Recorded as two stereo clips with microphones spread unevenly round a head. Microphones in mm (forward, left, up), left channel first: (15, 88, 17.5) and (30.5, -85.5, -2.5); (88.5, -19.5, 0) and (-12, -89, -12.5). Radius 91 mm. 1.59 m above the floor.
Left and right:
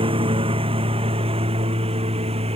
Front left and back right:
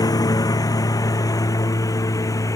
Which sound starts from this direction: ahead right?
A lawn mower, at 0.0 s.